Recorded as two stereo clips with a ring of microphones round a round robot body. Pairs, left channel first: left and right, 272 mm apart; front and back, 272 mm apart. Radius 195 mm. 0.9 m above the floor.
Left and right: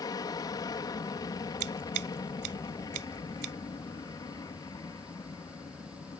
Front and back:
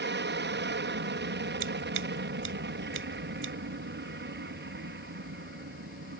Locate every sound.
0.0 s an aircraft: 160° left
1.6 s scissors: 120° right